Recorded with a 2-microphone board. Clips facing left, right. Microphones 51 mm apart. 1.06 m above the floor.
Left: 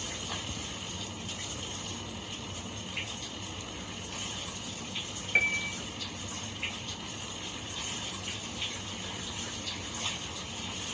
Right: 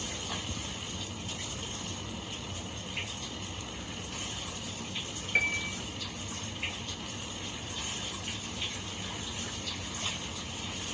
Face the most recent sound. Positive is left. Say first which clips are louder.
# left 2 dB
turn(degrees=10)  # may be behind; listen again after turning